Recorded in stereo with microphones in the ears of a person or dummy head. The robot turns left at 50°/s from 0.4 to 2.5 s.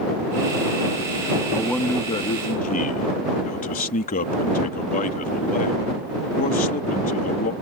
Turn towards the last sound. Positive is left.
turn(degrees=135)